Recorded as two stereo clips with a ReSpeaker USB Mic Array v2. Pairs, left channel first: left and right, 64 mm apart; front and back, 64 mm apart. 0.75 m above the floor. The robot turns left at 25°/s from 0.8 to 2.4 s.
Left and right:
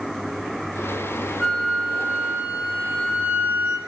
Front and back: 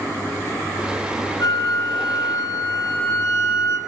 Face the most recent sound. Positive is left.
turn(degrees=-25)